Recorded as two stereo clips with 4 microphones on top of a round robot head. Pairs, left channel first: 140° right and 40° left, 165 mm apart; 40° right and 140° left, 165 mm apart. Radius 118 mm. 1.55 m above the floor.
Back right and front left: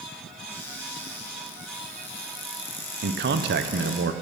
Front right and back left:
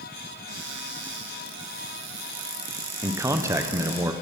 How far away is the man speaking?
About 1.0 m.